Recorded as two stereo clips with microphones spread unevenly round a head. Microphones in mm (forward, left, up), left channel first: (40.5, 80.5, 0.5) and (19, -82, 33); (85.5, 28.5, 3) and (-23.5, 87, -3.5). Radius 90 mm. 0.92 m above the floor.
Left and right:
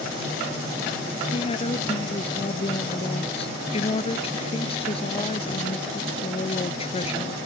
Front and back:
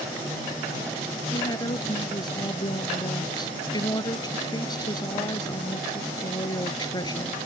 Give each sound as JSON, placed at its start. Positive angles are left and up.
{"t": 1.3, "sound": "a woman speaking", "azimuth_deg": 25}